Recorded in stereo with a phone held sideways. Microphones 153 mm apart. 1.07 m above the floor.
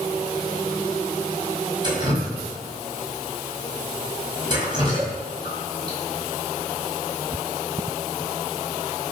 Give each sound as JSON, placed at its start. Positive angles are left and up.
{"t": 1.8, "sound": "dripping", "side_deg": -30, "distance_m": 5.0}